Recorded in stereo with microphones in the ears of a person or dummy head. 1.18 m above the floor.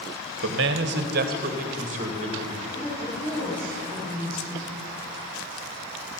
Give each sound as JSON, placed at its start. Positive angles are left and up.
{"t": 0.4, "sound": "a man speaking", "side_deg": -60, "distance_m": 1.0}
{"t": 2.7, "sound": "a woman speaking", "side_deg": 5, "distance_m": 4.0}